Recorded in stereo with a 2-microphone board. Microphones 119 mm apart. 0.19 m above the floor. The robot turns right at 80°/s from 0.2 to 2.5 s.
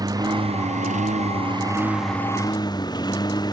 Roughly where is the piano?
No piano in this recording.